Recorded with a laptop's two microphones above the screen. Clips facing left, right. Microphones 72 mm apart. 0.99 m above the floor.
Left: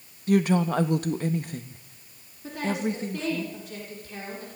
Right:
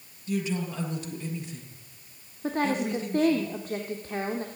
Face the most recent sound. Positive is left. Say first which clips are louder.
# right 2 dB
turn(degrees=-45)  # may be behind; listen again after turning